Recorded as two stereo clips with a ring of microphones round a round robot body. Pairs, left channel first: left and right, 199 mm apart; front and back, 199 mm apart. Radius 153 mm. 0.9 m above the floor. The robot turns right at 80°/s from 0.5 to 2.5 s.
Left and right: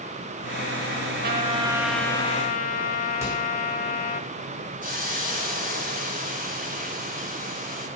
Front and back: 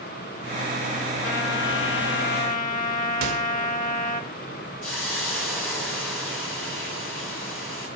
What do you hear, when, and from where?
1.2 s a trumpet: 55° right, 1.1 m; by 4.2 s 45° left, 1.1 m
3.2 s a microwave: 170° right, 1.3 m
4.8 s a hiss: 45° right, 6 m